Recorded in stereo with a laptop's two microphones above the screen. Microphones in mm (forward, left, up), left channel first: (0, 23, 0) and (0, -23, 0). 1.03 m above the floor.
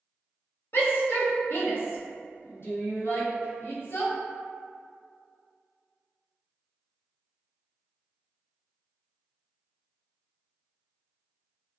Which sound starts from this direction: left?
A shout, at 0.7 s.